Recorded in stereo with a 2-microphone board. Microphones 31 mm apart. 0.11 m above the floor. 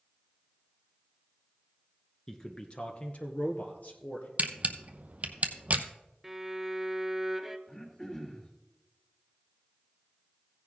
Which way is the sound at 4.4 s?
45° right (ahead or behind).